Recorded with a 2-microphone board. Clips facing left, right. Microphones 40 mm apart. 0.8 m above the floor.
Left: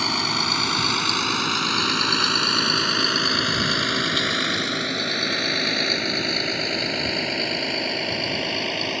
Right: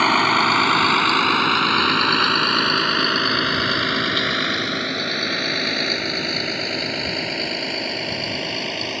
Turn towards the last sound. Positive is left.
turn(degrees=5)  # may be behind; listen again after turning